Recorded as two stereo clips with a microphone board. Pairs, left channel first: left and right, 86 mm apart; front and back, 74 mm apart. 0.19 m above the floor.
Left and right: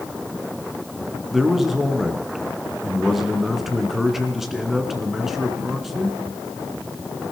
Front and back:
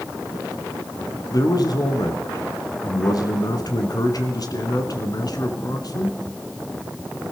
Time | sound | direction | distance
1.3 | a man speaking | straight ahead | 2.0 m